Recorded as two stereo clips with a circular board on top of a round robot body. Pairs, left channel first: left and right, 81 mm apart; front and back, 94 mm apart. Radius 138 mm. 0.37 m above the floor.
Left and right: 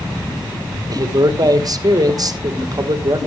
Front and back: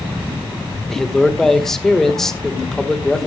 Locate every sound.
0.9 s a man speaking: 85° right, 1.9 m